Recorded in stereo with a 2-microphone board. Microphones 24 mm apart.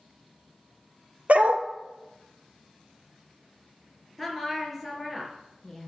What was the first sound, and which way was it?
A dog barking, 60° right (ahead or behind).